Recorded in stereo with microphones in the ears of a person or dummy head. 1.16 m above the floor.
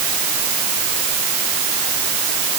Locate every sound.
Only background noise.